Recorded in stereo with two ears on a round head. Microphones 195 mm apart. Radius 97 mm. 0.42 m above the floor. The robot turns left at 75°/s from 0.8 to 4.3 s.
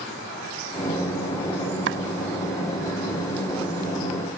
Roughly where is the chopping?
Right.